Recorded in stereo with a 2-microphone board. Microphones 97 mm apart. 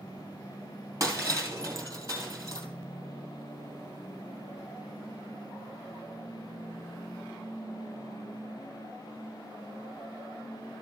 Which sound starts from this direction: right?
Breaking glass, at 1.0 s.